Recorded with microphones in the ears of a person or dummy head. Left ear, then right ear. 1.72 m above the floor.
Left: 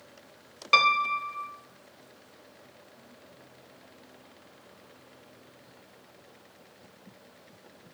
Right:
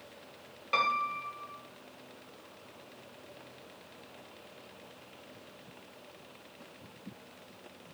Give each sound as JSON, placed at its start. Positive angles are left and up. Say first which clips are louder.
{"t": 0.7, "sound": "a piano", "louder": "left 8 dB", "side_deg": 40, "distance_m": 0.8}